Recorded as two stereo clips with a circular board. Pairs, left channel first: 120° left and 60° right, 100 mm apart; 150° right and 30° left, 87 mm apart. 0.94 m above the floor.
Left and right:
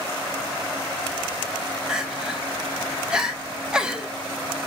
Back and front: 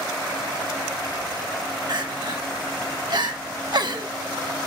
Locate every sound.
1.9 s crying: 20° left, 0.8 m